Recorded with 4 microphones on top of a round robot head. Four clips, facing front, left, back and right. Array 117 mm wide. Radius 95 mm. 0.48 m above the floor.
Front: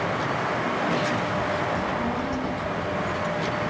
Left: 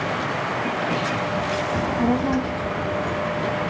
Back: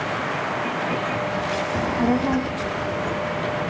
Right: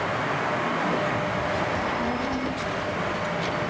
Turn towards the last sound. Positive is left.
turn(degrees=150)